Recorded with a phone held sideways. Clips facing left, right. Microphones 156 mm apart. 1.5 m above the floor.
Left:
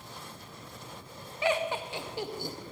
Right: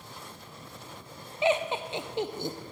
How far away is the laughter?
About 0.6 m.